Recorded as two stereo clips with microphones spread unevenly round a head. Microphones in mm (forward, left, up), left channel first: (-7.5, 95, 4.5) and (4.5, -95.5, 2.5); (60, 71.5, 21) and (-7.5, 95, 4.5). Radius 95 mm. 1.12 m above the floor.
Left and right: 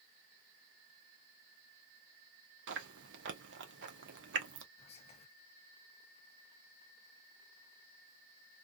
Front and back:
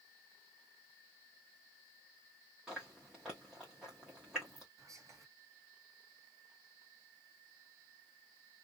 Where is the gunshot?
No gunshot in this recording.